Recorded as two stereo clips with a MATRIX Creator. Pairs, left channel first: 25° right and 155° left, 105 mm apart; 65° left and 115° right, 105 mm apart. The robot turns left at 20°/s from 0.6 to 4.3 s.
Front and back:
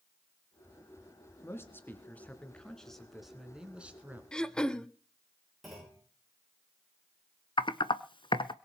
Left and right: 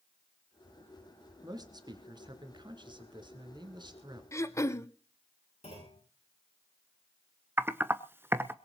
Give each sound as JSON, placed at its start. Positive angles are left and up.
{"t": 1.4, "sound": "a man speaking", "azimuth_deg": -80, "distance_m": 2.5}
{"t": 4.3, "sound": "throat clearing", "azimuth_deg": 50, "distance_m": 0.7}
{"t": 5.6, "sound": "a clunk", "azimuth_deg": 65, "distance_m": 9.0}
{"t": 7.6, "sound": "typing on a keyboard", "azimuth_deg": -50, "distance_m": 0.7}